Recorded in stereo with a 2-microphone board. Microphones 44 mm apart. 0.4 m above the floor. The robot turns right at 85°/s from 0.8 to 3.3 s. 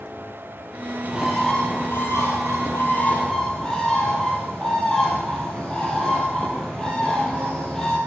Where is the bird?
30° right, 3.5 m; by 8.0 s 165° left, 3.5 m.